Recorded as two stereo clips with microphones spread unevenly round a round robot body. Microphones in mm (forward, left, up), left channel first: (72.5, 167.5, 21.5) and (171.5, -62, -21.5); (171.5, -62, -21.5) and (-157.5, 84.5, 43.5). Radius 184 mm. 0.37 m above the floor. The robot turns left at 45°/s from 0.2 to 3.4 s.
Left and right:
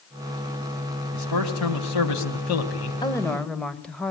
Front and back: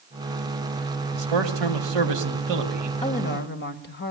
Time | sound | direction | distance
1.1 | a man speaking | 160° left | 3 m
3.0 | a woman speaking | 35° left | 1.9 m